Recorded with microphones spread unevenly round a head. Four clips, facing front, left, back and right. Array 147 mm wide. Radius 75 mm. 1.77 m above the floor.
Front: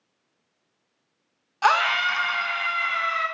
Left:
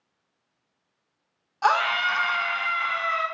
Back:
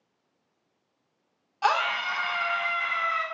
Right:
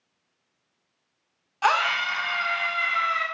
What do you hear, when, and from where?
1.6 s a scream: 15° left, 0.5 m; by 3.2 s 75° left, 1.3 m